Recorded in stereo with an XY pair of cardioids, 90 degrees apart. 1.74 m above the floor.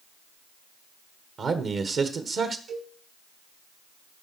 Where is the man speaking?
60° right, 1.8 m.